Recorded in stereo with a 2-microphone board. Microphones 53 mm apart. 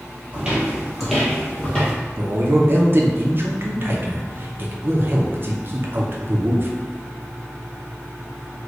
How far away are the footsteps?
About 1.4 m.